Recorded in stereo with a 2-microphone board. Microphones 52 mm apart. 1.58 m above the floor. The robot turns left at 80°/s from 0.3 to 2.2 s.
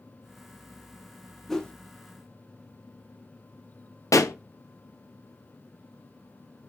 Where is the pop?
80° left, 0.7 m.